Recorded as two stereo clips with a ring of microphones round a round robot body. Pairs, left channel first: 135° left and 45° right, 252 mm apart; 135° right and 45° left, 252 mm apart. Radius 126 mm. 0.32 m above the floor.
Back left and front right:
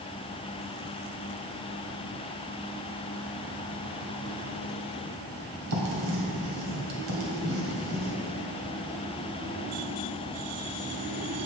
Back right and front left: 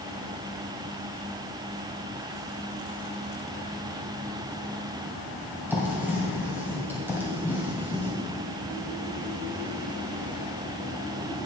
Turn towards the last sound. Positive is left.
turn(degrees=-35)